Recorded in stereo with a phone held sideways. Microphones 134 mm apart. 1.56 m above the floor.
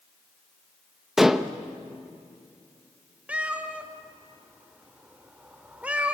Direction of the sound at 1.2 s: 5° right (ahead or behind).